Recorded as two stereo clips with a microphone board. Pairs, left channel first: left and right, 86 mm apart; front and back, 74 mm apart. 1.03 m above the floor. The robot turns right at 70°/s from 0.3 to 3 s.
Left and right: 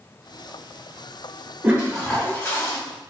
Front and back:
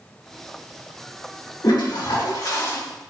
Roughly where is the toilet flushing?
Ahead right.